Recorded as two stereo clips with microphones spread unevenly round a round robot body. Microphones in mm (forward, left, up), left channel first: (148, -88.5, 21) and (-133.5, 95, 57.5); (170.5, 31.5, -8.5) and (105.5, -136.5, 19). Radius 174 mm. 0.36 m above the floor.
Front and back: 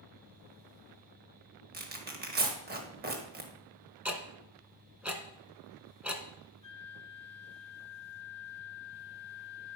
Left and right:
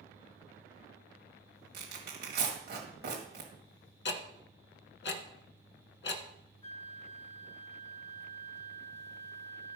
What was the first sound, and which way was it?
Tearing paper, 150° right.